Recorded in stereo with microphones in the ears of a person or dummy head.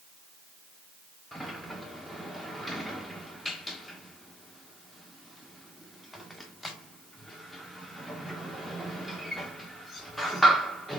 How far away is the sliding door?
About 1.2 m.